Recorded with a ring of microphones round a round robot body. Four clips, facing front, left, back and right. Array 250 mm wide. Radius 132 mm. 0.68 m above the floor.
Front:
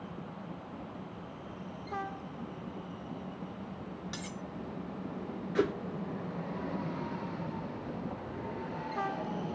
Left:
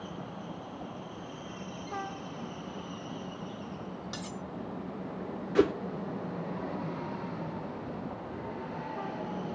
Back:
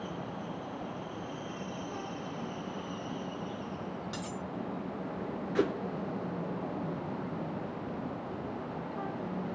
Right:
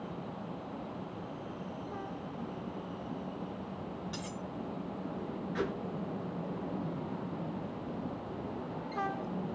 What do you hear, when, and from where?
4.1 s cutlery clinking: 70° left, 1.0 m
5.5 s a whoosh: 90° left, 0.6 m